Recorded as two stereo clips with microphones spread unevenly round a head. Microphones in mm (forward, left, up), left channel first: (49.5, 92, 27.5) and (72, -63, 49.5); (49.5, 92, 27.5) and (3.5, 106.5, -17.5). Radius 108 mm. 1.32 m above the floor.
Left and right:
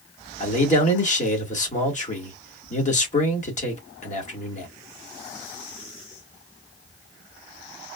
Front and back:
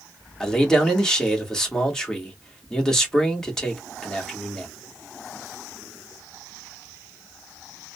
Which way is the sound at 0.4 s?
55° left.